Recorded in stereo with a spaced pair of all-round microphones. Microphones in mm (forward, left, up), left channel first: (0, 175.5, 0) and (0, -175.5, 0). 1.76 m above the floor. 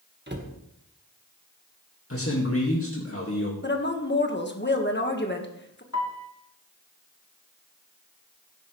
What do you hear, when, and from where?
0.3 s a cupboard door: 30° right (ahead or behind), 1.7 m
2.1 s a man speaking: 40° left (ahead or behind), 2 m
3.6 s a woman speaking: 30° left (ahead or behind), 1.6 m
5.9 s a piano: 50° left (ahead or behind), 1.8 m